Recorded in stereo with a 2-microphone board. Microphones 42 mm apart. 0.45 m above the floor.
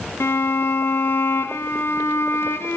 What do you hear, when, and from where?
0.2 s a violin: 70° left (ahead or behind), 1.1 m